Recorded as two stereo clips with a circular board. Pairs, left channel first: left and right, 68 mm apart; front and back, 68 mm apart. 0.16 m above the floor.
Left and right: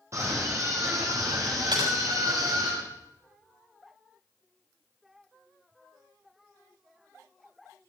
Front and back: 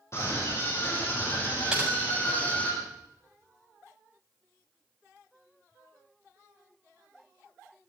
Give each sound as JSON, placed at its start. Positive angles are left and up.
{"t": 0.1, "sound": "a scream", "azimuth_deg": -45, "distance_m": 4.5}
{"t": 1.7, "sound": "typing on a keyboard", "azimuth_deg": -100, "distance_m": 6.5}